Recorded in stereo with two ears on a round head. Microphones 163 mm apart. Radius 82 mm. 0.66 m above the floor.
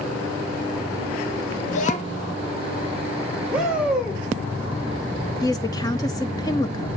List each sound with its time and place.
1.7 s a child speaking: 45° left (ahead or behind), 1.1 m
3.5 s a shout: 5° right (ahead or behind), 2 m
5.4 s a woman speaking: 20° left (ahead or behind), 0.8 m